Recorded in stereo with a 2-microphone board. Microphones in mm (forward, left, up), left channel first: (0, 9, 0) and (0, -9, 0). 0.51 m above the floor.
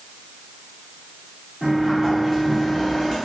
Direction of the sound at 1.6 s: 10° left (ahead or behind).